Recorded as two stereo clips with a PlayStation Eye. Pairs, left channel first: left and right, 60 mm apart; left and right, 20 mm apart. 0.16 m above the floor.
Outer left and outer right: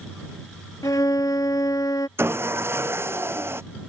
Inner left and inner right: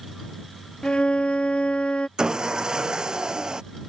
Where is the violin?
70° left (ahead or behind).